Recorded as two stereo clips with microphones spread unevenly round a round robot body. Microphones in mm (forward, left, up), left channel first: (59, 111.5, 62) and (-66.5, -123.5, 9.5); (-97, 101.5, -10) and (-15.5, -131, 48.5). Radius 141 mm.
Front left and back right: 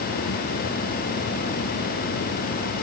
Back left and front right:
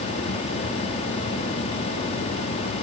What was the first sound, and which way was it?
Only background noise.